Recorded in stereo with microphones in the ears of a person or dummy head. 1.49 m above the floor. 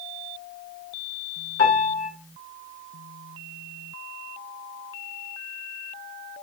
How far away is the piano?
About 1.8 m.